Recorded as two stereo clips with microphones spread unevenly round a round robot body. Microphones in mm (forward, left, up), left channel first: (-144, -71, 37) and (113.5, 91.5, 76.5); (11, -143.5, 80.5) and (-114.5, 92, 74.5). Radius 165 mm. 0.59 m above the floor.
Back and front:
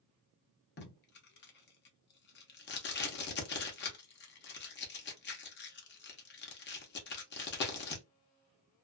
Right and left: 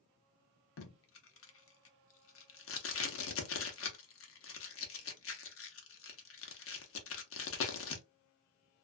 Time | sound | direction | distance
0.8 | tape being pulled | 100° right | 0.8 m